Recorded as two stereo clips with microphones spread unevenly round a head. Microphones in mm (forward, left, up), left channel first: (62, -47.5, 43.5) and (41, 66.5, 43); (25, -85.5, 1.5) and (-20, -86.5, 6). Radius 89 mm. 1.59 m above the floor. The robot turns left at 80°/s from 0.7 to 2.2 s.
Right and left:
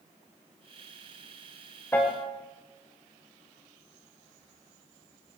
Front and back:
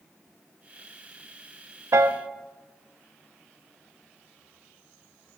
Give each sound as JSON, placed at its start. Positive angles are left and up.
{"t": 1.9, "sound": "a piano", "azimuth_deg": -155, "distance_m": 0.6}